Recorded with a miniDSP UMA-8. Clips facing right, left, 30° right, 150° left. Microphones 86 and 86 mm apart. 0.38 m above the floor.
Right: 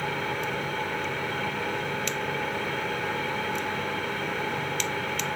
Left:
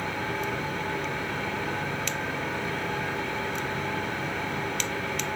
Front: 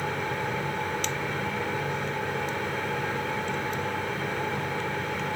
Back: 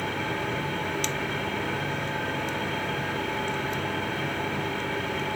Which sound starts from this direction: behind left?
An engine running, at 0.0 s.